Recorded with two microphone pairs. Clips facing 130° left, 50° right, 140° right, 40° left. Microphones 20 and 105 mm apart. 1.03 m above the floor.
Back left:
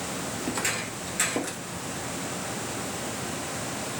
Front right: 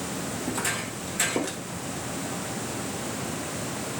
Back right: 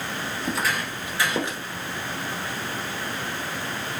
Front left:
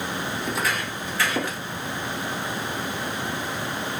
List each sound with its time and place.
0.4 s footsteps: 125° left, 1.4 m; by 1.6 s 115° right, 1.1 m